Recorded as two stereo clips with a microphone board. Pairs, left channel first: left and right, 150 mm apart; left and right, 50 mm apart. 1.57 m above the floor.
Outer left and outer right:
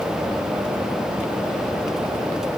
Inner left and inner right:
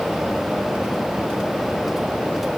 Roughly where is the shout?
No shout in this recording.